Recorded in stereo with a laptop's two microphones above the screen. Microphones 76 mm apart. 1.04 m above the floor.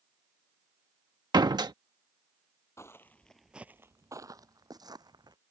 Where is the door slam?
70° right (ahead or behind).